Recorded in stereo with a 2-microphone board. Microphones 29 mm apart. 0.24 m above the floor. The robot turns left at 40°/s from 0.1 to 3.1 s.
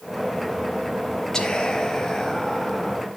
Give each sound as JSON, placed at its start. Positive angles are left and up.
{"t": 1.3, "sound": "whispering", "side_deg": 20, "distance_m": 1.0}